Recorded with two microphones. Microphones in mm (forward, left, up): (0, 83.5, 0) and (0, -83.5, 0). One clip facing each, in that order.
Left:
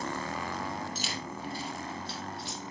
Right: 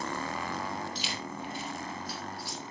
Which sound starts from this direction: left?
Keys jangling, at 0.9 s.